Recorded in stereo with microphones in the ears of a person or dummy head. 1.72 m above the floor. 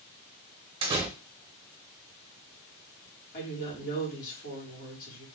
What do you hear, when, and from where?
0.8 s a door slam: 30° right (ahead or behind), 1.0 m
3.3 s a woman speaking: 50° left (ahead or behind), 2.5 m